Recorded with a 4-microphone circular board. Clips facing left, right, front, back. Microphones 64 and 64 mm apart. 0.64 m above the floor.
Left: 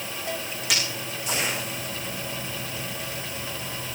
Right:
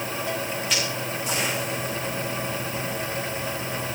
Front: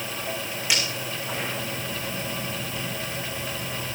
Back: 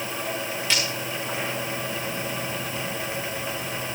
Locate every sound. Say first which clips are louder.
0.7 s breaking glass: left 1 dB, even; 80° left, 10 m